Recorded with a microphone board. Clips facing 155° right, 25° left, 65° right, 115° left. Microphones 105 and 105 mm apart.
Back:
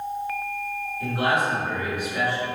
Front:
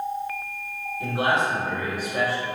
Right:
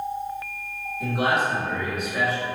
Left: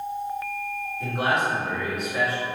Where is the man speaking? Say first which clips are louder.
Front 1 dB, right 2 dB; straight ahead, 1.2 m; by 2.5 s 25° left, 1.6 m.